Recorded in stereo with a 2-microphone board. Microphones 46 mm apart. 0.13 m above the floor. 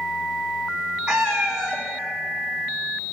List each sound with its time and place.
1.1 s a cat meowing: 15° right (ahead or behind), 2.5 m